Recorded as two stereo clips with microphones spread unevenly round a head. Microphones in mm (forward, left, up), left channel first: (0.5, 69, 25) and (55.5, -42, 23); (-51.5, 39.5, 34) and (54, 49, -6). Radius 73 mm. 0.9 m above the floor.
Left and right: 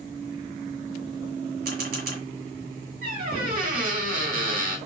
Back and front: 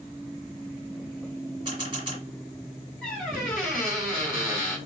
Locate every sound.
1.6 s a camera shutter: 65° right, 1.7 m
3.0 s a squeak: 85° right, 1.4 m